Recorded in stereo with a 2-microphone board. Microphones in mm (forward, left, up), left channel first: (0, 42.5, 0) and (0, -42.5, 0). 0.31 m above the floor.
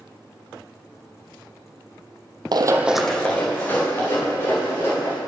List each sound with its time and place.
2.5 s running footsteps: 60° right (ahead or behind), 0.5 m; by 5.2 s 35° left (ahead or behind), 4 m